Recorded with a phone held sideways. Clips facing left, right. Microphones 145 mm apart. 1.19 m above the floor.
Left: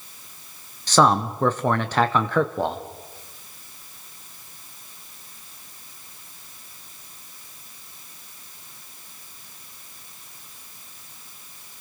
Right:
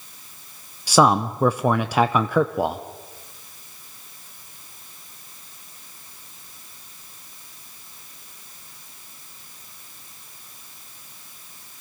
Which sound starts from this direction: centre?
A man speaking, at 0.9 s.